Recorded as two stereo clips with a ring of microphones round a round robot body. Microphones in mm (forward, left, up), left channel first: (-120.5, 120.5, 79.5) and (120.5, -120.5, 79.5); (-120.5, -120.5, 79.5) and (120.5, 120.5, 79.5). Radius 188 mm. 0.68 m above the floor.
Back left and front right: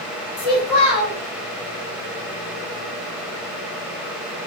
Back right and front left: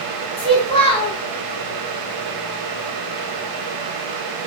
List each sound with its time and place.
0.4 s a child speaking: 150° left, 1.3 m